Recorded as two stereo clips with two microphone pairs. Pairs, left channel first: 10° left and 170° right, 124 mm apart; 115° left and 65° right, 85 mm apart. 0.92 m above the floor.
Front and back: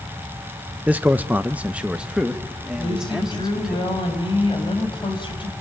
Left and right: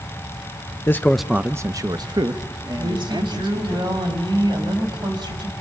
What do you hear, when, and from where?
0.9 s a man speaking: 125° left, 0.6 m; by 3.8 s 85° right, 2.5 m
2.8 s a woman speaking: 35° right, 4.5 m